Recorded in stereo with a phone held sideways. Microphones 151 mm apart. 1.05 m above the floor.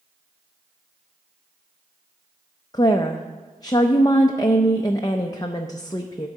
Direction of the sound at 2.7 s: 25° left (ahead or behind).